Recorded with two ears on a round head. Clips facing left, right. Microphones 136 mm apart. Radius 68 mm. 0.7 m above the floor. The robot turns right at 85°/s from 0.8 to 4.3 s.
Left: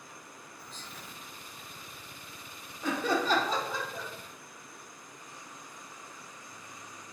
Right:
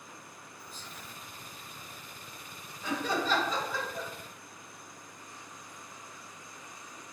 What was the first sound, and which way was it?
Whispering, 5° right (ahead or behind).